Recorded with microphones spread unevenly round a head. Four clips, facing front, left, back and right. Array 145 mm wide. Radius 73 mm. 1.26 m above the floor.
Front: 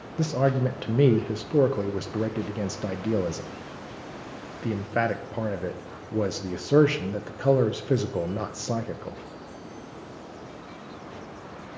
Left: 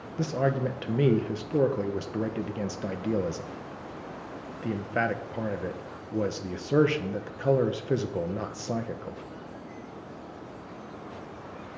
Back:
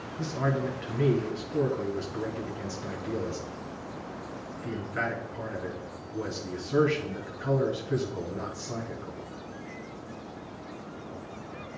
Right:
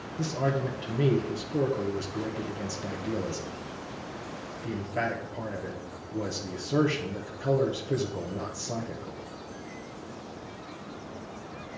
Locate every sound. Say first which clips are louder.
0.2 s a man speaking: left 2 dB, front 6 dB; 25° left, 1.0 m